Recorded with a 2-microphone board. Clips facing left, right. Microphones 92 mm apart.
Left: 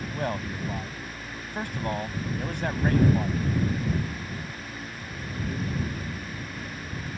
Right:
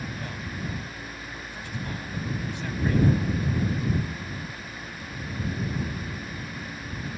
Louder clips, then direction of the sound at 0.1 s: Left 6 dB; 55° left (ahead or behind).